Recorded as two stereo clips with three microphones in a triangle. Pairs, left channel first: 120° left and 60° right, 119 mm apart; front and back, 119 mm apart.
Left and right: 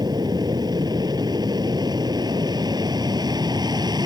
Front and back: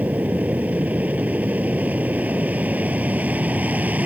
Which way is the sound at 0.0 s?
105° right.